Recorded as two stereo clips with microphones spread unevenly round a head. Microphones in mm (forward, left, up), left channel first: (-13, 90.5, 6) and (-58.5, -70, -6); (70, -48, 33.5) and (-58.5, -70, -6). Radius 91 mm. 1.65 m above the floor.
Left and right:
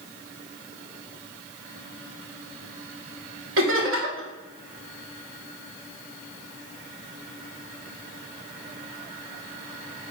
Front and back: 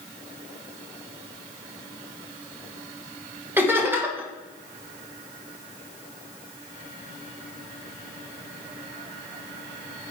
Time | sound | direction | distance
3.6 | laughter | 95° right | 2.0 m